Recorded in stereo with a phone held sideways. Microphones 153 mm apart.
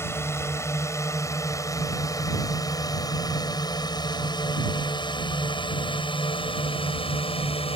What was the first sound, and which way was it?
A drone, 15° left (ahead or behind).